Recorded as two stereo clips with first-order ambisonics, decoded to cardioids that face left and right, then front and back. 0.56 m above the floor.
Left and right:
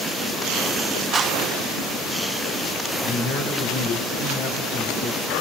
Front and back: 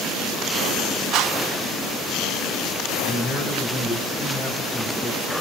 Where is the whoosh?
155° right, 0.8 m.